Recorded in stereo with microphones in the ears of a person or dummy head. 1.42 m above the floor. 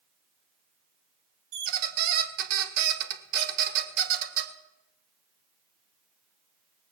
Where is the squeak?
55° right (ahead or behind), 1.2 m.